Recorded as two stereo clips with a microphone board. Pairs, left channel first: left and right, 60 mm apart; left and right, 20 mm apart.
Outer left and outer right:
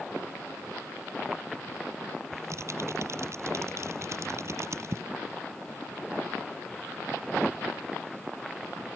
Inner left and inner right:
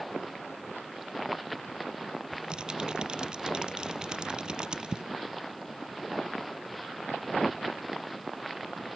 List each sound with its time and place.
2.3 s typing on a keyboard: 50° right (ahead or behind)